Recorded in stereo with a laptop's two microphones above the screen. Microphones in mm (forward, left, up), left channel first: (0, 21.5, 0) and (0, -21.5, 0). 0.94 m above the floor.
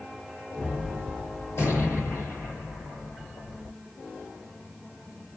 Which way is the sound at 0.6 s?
80° left.